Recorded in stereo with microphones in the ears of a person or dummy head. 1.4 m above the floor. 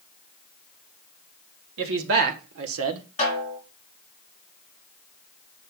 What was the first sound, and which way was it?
A man speaking, 75° right (ahead or behind).